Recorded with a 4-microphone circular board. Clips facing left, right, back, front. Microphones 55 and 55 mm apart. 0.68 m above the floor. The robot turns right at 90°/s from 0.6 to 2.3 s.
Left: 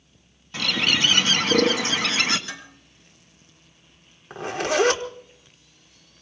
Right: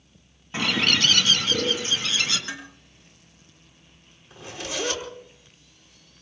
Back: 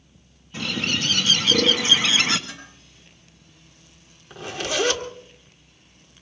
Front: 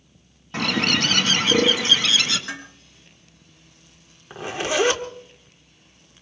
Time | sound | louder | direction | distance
0.5 | a bird | even, front 4 dB | 20° right | 1.7 m
2.5 | dishes clattering | right 2 dB, front 7 dB | 25° right | 6.5 m
4.3 | a zipper | left 10 dB, front 3 dB | 60° left | 1.6 m